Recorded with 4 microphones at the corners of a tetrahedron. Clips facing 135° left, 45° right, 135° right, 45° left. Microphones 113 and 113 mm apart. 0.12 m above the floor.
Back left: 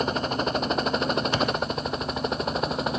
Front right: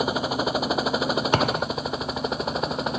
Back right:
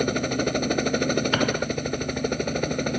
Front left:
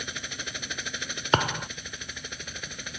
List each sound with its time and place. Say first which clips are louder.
0.0 s a helicopter: front right 1 dB, back right 17 dB; 125° right; by 3.0 s 135° right
1.3 s a thud: front right 3 dB, back right 3 dB; 10° right